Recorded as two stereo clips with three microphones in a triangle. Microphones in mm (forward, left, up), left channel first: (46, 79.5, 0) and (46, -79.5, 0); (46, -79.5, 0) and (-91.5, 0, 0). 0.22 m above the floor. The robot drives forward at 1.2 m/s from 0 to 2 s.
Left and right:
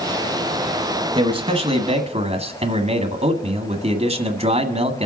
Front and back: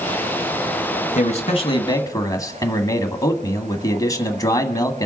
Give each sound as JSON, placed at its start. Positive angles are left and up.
{"t": 1.1, "sound": "a man speaking", "azimuth_deg": -45, "distance_m": 2.0}